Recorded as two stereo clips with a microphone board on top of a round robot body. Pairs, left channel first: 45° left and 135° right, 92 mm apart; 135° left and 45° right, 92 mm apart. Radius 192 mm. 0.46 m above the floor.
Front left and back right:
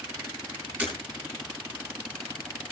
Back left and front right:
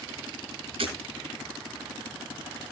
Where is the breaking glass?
55° right, 7.5 m.